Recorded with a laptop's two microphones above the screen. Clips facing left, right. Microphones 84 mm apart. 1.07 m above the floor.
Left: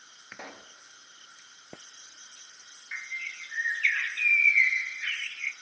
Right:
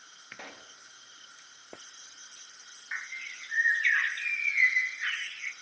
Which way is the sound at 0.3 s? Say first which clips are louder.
Left 2 dB; 15° left (ahead or behind).